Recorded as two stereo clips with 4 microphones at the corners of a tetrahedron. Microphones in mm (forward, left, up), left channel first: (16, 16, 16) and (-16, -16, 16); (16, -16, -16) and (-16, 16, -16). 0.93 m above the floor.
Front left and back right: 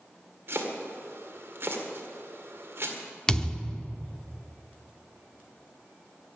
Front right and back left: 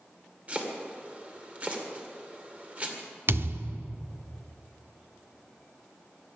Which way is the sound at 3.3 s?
115° left.